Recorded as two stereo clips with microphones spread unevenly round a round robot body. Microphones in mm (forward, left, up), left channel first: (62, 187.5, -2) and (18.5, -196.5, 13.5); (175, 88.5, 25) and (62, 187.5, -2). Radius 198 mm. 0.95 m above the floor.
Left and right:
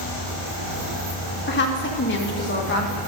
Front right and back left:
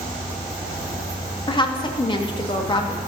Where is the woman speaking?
25° left, 1.6 m.